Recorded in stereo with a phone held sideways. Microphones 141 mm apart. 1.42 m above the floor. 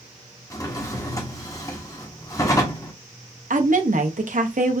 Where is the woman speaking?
70° right (ahead or behind), 0.7 m.